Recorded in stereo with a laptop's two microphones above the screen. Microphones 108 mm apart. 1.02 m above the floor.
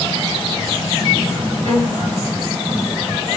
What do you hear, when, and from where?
1.6 s a violin: 50° right (ahead or behind), 5.5 m